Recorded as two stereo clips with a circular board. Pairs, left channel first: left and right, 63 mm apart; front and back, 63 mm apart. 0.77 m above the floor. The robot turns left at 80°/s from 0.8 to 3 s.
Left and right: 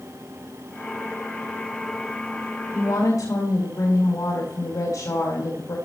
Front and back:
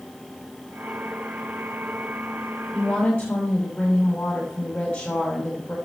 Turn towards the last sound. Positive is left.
turn(degrees=70)